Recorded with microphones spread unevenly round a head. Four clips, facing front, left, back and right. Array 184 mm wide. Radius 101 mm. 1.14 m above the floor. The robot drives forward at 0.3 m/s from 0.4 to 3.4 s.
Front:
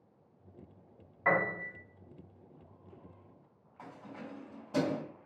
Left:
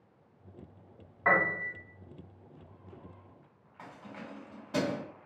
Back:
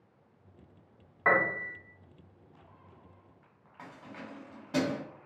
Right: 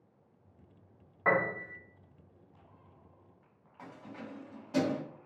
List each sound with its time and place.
1.2 s a piano: 135° right, 0.8 m; by 1.8 s 145° right, 0.9 m
3.8 s keys jangling: 150° left, 1.5 m